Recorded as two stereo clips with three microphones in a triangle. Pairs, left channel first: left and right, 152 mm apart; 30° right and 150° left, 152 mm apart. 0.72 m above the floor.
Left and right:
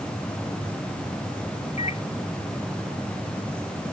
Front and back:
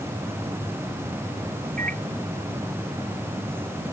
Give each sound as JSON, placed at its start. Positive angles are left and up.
{"t": 1.8, "sound": "a microwave", "azimuth_deg": 135}